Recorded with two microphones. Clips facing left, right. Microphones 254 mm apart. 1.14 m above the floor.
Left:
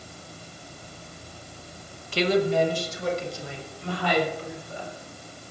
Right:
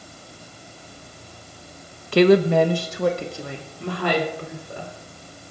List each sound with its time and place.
2.1 s a woman speaking: 70° right (ahead or behind), 0.9 m